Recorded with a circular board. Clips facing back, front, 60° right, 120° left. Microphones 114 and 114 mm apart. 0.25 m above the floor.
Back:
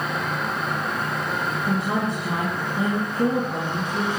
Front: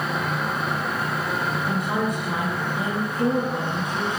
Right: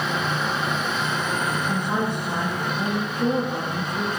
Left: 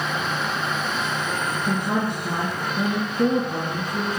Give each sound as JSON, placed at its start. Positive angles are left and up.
{"t": 1.7, "sound": "a woman speaking", "azimuth_deg": 120, "distance_m": 3.0}